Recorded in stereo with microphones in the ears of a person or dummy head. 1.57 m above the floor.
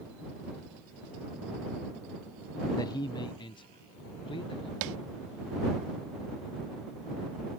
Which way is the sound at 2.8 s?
25° left (ahead or behind).